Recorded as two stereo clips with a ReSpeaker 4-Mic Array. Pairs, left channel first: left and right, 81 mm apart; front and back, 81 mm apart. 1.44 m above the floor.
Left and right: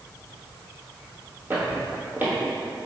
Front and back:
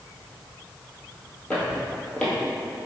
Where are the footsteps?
65° right, 1.6 m.